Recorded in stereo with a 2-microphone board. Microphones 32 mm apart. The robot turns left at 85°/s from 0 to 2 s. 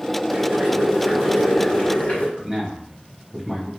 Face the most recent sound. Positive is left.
turn(degrees=-15)  # may be behind; listen again after turning